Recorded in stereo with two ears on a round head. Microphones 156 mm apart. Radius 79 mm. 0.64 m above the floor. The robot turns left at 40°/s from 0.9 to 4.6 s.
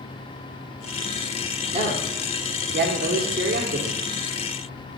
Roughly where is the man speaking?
Right.